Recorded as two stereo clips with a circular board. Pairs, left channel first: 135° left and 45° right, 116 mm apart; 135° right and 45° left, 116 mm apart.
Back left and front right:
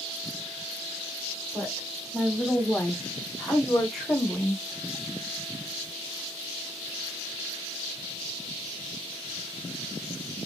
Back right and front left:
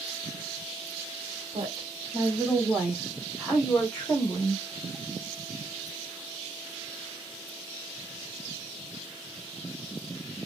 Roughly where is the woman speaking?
Ahead left.